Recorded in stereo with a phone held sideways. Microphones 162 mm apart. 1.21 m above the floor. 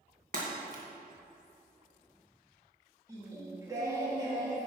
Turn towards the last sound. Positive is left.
turn(degrees=-20)  # may be behind; listen again after turning